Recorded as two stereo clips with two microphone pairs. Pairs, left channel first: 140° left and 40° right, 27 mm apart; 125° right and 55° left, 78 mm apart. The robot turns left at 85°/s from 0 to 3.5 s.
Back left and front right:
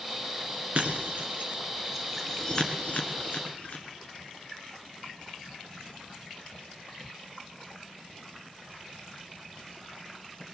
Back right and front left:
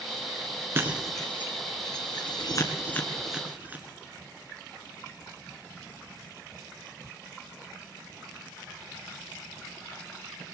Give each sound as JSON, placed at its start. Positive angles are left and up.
{"t": 0.8, "sound": "breaking glass", "azimuth_deg": 0, "distance_m": 2.0}